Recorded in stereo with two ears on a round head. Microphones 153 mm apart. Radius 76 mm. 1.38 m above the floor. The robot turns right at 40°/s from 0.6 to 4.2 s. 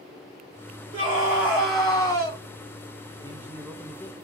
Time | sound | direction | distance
0.9 | a scream | 30° right | 1.6 m
3.2 | a man speaking | 20° right | 0.6 m